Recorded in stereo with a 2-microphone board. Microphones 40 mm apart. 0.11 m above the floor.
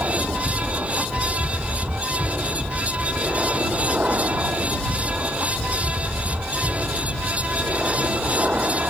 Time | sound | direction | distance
0.0 | an aircraft | 45° right (ahead or behind) | ?